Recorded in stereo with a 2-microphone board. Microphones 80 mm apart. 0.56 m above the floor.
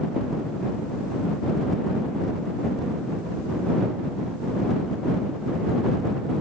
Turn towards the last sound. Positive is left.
No sound to turn to.